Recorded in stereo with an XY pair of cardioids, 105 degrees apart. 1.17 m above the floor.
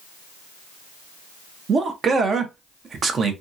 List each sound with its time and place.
1.7 s a man speaking: 45° right, 0.8 m